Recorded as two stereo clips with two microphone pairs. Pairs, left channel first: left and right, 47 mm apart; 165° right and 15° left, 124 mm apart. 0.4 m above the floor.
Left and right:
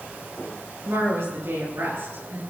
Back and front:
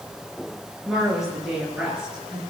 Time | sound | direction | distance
0.8 | a woman speaking | 75° right | 7.5 m